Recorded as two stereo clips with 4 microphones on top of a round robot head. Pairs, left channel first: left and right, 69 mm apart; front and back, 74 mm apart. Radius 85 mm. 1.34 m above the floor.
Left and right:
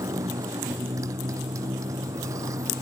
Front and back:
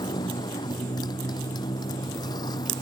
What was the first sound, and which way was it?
A motorcycle, 40° right.